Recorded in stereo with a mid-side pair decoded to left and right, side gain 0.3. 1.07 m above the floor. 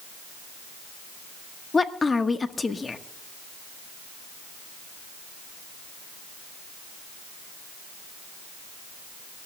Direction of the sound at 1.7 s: 40° left.